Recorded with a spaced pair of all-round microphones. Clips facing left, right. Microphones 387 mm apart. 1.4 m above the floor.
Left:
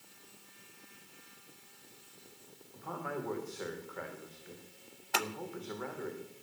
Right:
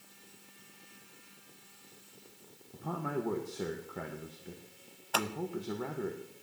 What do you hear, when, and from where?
2.7 s a man speaking: 50° right (ahead or behind), 1.9 m
5.1 s scissors: 35° left (ahead or behind), 0.8 m